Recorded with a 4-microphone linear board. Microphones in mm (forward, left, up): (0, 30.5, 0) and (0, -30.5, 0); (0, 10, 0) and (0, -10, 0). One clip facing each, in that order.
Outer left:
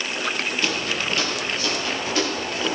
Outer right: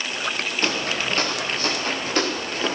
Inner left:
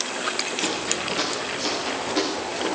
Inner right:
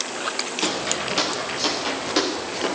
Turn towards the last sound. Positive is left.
turn(degrees=-45)  # may be behind; listen again after turning